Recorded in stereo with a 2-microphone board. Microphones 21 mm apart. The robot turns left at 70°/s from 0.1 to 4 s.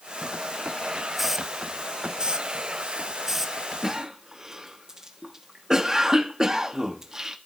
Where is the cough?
15° right (ahead or behind), 1.1 m; by 7.4 s 25° right (ahead or behind), 1.1 m.